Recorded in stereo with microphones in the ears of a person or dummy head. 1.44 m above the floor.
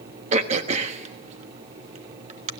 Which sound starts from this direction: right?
Throat clearing, at 0.3 s.